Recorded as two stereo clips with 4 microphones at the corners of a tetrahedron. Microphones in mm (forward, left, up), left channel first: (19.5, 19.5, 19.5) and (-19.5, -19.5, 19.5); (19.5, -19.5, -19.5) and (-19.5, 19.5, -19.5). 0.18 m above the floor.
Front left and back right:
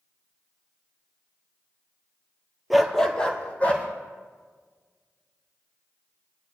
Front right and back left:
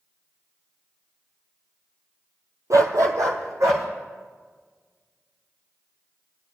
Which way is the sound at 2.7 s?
140° left.